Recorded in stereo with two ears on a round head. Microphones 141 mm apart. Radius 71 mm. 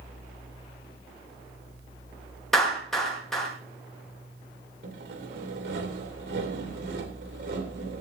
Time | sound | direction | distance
2.5 | a clap | centre (ahead or behind) | 6.5 m
4.8 | sawing | 70° right (ahead or behind) | 2.5 m